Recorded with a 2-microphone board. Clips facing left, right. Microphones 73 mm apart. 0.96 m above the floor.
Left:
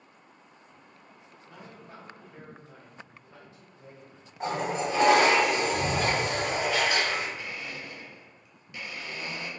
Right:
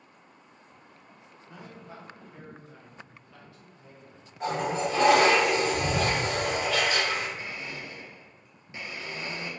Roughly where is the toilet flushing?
Left.